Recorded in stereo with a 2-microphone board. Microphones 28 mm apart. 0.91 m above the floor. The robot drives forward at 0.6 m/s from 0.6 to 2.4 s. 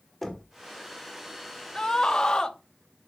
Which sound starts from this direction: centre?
Knocking, at 0.2 s.